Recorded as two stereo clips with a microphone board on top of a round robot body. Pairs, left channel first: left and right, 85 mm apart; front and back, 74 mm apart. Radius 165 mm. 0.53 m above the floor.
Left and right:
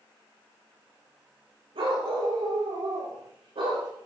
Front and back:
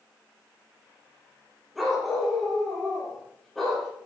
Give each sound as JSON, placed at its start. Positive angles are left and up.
{"t": 1.8, "sound": "a dog barking", "azimuth_deg": -90, "distance_m": 7.0}